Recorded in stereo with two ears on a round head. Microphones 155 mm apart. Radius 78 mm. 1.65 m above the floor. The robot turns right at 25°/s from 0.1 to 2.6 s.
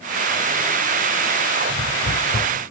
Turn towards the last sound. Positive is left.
turn(degrees=60)  # may be behind; listen again after turning